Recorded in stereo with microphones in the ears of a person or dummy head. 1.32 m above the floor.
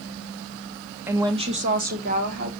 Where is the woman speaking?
15° right (ahead or behind), 1.1 m; by 2.5 s 60° right (ahead or behind), 2.5 m.